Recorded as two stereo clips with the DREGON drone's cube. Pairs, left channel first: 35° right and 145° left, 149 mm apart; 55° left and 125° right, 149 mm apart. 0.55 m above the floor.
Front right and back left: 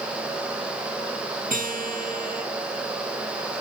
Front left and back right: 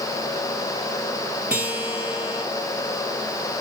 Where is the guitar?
155° left, 2.5 m.